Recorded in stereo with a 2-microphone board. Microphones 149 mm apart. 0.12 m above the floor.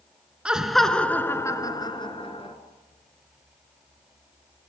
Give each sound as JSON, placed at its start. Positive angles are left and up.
{"t": 0.5, "sound": "laughter", "side_deg": -5, "distance_m": 1.6}